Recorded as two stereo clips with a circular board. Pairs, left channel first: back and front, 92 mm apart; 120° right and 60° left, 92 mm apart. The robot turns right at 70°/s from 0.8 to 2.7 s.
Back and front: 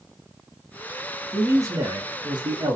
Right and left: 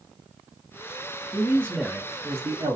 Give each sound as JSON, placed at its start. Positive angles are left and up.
{"t": 1.3, "sound": "a man speaking", "azimuth_deg": -70, "distance_m": 0.9}